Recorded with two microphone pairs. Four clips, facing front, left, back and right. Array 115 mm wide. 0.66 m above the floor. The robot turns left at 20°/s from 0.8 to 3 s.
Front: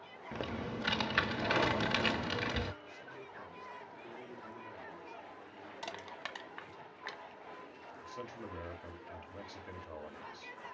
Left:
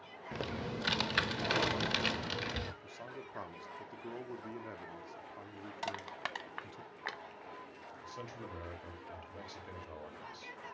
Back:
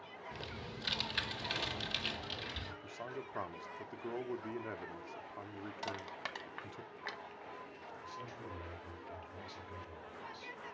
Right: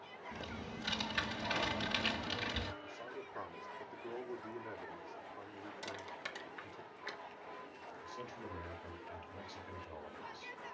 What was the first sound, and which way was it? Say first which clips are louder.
Typing on a keyboard: left 7 dB, front 10 dB; 50° left.